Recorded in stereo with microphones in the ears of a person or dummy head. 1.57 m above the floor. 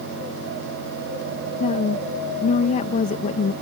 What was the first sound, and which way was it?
A woman speaking, 35° left (ahead or behind).